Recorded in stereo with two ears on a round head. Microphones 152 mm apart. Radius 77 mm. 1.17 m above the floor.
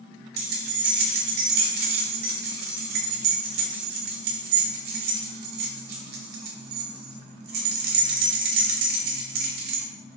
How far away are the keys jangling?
About 0.6 m.